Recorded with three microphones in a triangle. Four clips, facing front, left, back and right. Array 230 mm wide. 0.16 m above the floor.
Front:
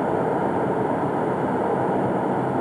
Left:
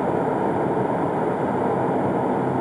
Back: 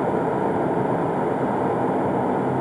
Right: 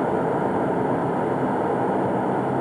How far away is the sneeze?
No sneeze in this recording.